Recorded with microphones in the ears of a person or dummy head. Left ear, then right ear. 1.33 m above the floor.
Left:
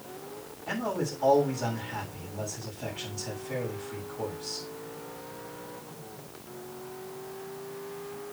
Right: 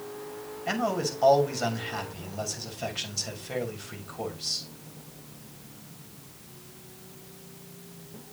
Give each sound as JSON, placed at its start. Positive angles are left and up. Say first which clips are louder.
{"t": 0.7, "sound": "a man speaking", "louder": "right 3 dB", "side_deg": -65, "distance_m": 6.5}